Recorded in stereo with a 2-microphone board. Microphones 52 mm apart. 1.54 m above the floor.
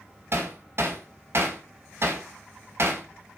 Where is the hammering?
50° right (ahead or behind), 1.7 m.